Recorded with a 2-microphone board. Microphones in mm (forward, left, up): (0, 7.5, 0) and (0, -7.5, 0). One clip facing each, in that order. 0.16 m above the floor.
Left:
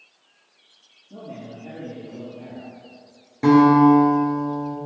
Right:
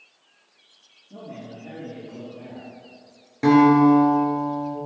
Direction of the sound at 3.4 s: 20° right (ahead or behind).